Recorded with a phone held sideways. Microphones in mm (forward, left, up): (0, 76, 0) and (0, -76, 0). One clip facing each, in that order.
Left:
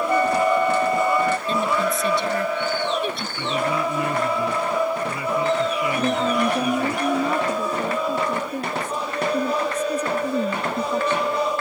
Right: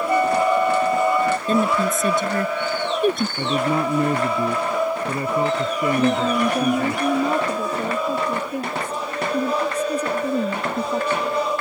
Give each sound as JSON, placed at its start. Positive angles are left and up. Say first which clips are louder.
{"t": 0.1, "sound": "a flute", "louder": "right 2 dB", "side_deg": -10}
{"t": 1.5, "sound": "a woman speaking", "louder": "right 3 dB", "side_deg": -50}
{"t": 3.4, "sound": "a man speaking", "louder": "right 2 dB", "side_deg": -45}
{"t": 6.0, "sound": "a woman speaking", "louder": "right 2 dB", "side_deg": -10}